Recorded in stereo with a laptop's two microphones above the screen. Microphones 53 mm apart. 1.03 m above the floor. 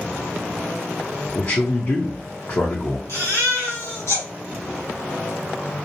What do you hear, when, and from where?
1.4 s a man speaking: 55° left (ahead or behind), 0.7 m
3.1 s a baby crying: 70° left (ahead or behind), 1.9 m